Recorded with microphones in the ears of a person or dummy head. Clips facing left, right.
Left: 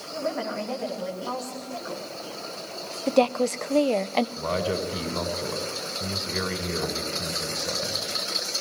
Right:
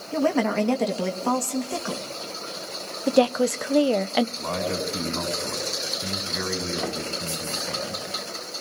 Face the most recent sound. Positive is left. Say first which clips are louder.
# left 1 dB
turn(degrees=50)  # may be behind; listen again after turning